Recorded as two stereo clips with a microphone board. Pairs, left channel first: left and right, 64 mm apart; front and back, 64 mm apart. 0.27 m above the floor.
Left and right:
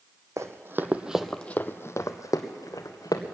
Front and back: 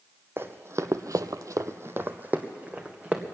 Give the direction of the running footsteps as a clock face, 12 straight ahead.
4 o'clock.